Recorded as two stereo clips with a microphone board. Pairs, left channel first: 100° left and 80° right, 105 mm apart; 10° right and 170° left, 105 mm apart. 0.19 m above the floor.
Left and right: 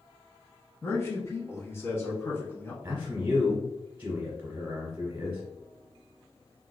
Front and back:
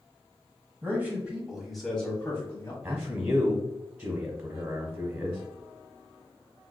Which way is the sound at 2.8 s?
135° right.